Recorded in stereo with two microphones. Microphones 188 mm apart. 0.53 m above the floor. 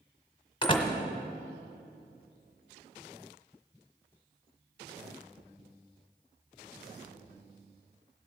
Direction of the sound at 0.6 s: 25° left (ahead or behind).